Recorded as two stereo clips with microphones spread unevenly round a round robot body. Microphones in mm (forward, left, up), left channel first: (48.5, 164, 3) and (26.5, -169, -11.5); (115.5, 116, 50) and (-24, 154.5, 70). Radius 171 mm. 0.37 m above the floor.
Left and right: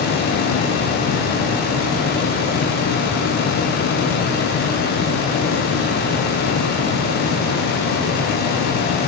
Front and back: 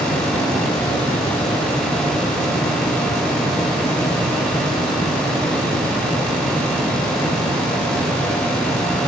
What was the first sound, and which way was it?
Only background noise.